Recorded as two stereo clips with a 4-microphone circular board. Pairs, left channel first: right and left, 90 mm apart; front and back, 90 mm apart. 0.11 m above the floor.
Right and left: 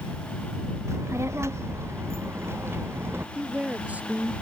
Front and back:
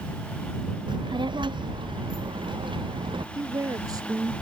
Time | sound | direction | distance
0.9 | a child speaking | 150° left | ?
3.4 | a woman speaking | 160° left | ?